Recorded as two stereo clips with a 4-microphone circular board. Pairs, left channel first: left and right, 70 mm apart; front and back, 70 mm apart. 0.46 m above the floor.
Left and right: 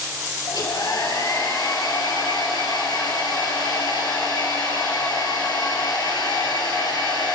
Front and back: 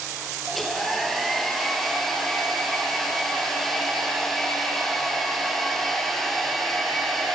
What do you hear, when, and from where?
0.5 s a hair dryer: 85° left, 4.5 m